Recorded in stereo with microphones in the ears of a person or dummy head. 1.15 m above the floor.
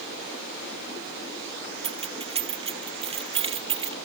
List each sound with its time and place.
1.8 s keys jangling: 30° right (ahead or behind)